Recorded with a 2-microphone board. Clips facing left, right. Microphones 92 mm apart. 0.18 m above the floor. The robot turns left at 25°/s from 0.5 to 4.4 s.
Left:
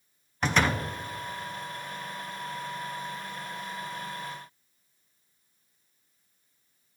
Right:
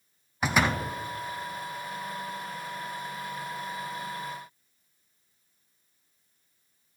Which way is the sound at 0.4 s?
5° right (ahead or behind).